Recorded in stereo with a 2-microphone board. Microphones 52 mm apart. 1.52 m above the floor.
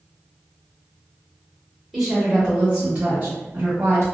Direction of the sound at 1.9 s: Centre (ahead or behind).